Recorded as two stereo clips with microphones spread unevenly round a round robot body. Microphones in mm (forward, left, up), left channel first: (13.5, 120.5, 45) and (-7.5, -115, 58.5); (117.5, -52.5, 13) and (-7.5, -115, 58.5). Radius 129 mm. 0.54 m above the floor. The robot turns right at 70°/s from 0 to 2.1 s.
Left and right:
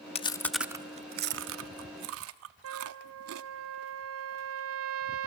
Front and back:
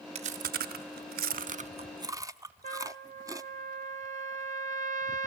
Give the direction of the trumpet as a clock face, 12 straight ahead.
4 o'clock.